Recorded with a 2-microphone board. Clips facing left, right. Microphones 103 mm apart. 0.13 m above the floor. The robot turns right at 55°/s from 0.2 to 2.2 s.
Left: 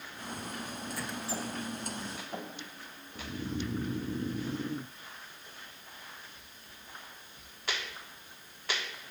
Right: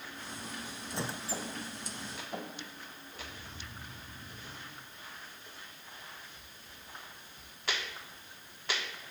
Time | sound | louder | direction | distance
0.9 | a squeak | right 1 dB | 160° right | ?
3.1 | snoring | left 14 dB | 70° left (ahead or behind) | ?